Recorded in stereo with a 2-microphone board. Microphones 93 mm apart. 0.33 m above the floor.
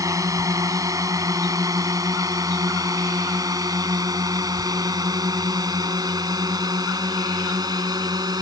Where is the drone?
35° right (ahead or behind); by 8.4 s 45° right (ahead or behind).